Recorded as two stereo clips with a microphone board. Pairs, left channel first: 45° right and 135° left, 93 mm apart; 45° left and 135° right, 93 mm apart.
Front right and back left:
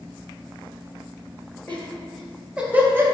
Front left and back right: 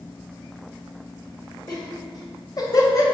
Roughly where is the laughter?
Ahead left.